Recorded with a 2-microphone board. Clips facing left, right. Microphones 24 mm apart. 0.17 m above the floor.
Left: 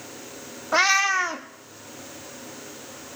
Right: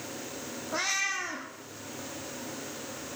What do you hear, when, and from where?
0.7 s a cat meowing: 50° left (ahead or behind), 1.0 m